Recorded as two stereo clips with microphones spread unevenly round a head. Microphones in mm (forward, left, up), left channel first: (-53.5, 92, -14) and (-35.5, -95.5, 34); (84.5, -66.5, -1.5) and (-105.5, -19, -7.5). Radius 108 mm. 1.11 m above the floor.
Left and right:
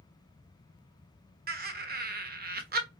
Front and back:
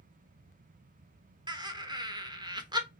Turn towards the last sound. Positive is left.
turn(degrees=-130)